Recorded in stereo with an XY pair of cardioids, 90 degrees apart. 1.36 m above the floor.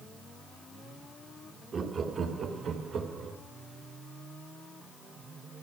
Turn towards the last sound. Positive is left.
turn(degrees=-70)